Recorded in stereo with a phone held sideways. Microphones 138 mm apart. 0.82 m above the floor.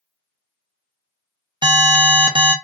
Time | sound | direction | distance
1.6 | an alarm | 35° right (ahead or behind) | 0.6 m